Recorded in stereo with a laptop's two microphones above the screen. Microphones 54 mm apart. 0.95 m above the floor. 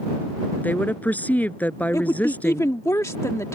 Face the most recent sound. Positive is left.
turn(degrees=70)  # may be behind; listen again after turning